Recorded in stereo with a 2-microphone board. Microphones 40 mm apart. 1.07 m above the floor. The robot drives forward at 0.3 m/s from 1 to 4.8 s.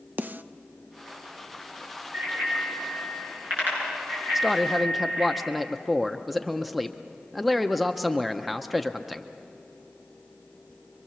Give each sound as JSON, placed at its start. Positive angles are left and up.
{"t": 0.2, "sound": "a snare drum", "side_deg": -45, "distance_m": 0.5}
{"t": 2.1, "sound": "a bicycle bell", "side_deg": -55, "distance_m": 9.5}
{"t": 4.3, "sound": "a man speaking", "side_deg": 0, "distance_m": 0.5}